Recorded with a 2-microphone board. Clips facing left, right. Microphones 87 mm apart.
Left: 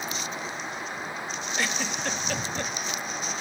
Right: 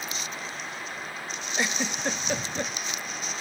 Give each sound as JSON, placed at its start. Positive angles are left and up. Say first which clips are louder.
{"t": 1.6, "sound": "a giggle", "louder": "right 2 dB", "side_deg": -15, "distance_m": 0.6}